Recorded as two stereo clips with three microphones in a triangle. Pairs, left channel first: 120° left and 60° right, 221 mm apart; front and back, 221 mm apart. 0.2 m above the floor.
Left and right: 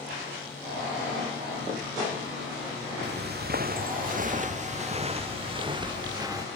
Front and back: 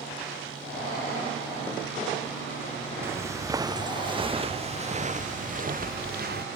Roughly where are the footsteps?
Right.